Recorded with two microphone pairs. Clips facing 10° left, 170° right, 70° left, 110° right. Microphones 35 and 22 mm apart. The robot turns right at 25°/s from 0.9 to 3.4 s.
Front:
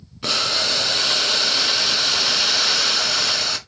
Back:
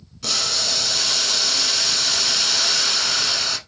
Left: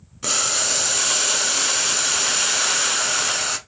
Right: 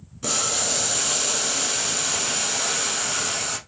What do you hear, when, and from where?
0.2 s boiling: 25° left, 0.6 m; by 3.6 s 90° left, 0.6 m